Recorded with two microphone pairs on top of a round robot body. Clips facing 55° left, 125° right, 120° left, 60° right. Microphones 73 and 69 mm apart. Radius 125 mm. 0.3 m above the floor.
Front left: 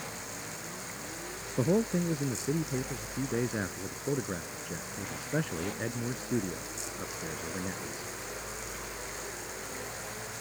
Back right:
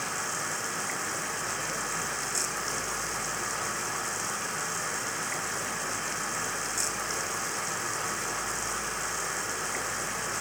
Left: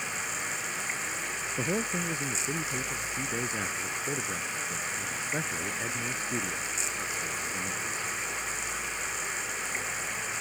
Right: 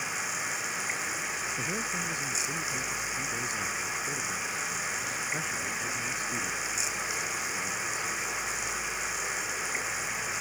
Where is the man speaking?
55° left.